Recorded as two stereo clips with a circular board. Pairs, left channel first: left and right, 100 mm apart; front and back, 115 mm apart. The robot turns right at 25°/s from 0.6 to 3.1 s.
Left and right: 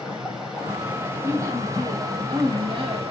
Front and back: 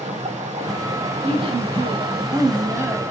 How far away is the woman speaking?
About 3 m.